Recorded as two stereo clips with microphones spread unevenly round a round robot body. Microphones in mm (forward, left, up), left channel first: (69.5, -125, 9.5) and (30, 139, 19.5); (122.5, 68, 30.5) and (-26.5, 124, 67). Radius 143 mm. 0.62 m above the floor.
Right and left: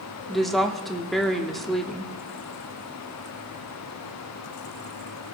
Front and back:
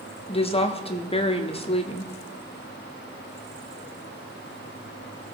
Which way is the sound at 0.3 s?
5° left.